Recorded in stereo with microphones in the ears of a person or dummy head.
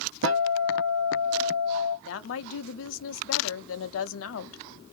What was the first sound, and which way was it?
A guitar, 70° right (ahead or behind).